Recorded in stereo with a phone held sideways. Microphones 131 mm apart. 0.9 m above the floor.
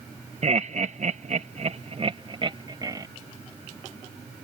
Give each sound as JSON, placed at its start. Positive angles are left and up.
{"t": 0.4, "sound": "laughter", "side_deg": -55}